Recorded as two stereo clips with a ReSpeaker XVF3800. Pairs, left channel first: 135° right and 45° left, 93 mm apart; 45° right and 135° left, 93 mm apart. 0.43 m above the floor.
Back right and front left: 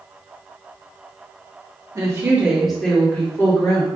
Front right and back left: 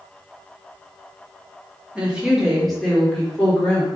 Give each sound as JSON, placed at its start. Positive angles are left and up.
{"t": 1.9, "sound": "a woman speaking", "azimuth_deg": 65, "distance_m": 1.2}